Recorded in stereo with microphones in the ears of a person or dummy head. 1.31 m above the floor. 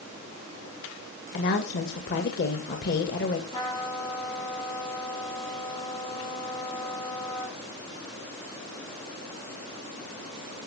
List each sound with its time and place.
1.3 s a woman speaking: 55° left (ahead or behind), 1.9 m
3.5 s a trumpet: 20° left (ahead or behind), 4 m